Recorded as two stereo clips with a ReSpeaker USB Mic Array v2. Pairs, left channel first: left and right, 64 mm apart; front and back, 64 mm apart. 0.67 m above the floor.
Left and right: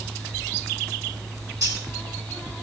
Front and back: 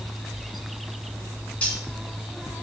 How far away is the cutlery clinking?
About 3 m.